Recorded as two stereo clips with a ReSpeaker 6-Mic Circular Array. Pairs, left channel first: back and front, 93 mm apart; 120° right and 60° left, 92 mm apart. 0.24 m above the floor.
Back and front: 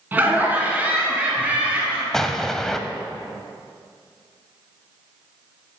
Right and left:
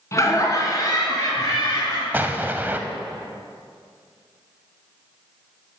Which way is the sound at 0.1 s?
65° right.